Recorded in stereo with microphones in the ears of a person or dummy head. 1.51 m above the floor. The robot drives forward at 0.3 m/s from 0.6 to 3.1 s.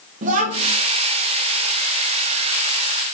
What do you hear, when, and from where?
0.2 s a child speaking: 40° right (ahead or behind), 1.0 m